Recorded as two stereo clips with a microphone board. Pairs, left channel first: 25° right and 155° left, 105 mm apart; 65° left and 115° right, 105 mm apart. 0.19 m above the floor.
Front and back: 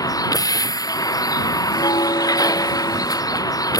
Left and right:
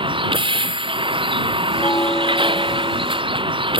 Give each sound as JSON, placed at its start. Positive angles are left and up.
{"t": 0.0, "sound": "a vehicle", "azimuth_deg": -75}
{"t": 1.7, "sound": "a bell", "azimuth_deg": 10}